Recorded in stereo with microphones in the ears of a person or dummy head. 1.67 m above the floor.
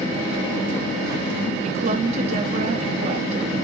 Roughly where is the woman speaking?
Right.